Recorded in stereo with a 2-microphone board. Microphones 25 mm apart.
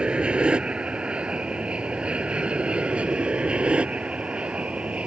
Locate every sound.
0.0 s an aircraft: 40° right (ahead or behind); by 5.1 s 45° right (ahead or behind)